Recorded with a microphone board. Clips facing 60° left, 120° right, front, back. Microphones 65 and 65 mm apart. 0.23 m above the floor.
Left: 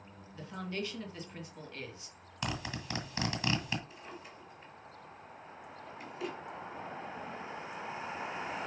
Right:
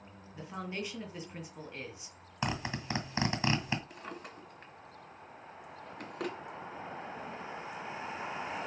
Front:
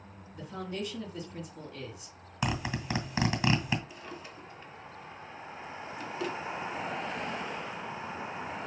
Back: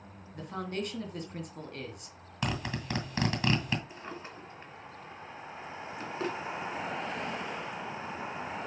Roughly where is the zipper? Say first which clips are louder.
Right 3 dB, front 2 dB; right.